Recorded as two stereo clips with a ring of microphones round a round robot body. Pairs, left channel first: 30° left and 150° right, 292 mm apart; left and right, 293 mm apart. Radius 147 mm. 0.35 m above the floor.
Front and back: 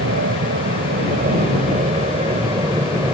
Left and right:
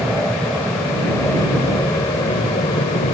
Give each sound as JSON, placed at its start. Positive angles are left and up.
{"t": 0.0, "sound": "an aircraft", "azimuth_deg": 180}